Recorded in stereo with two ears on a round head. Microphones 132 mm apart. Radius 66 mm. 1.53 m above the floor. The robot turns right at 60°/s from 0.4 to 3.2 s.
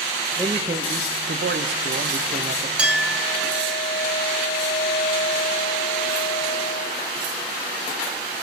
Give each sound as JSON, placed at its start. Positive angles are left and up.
{"t": 0.4, "sound": "a man speaking", "azimuth_deg": -165, "distance_m": 0.8}
{"t": 2.8, "sound": "a clink", "side_deg": -10, "distance_m": 2.5}